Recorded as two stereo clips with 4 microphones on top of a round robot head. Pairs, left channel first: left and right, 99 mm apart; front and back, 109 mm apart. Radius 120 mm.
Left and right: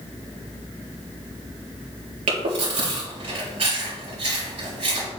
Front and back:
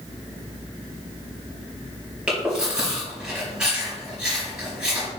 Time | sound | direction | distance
2.3 | chewing | 100° right | 3.5 m